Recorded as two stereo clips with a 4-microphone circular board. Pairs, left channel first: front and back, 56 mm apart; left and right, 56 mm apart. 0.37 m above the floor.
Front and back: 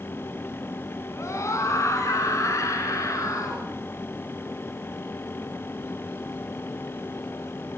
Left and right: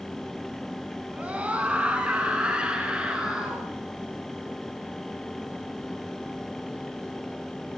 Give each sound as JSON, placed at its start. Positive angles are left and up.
{"t": 1.1, "sound": "a scream", "azimuth_deg": -30, "distance_m": 3.0}